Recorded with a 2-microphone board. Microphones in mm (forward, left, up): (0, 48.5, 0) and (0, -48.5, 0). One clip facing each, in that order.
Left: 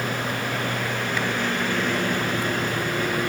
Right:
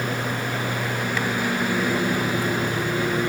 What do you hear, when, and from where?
0.0 s a lawn mower: 10° right (ahead or behind)